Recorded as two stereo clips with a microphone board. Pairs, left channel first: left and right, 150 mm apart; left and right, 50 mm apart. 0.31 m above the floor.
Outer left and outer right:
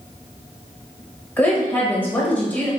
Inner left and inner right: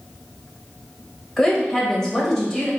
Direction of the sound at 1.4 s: 10° left (ahead or behind).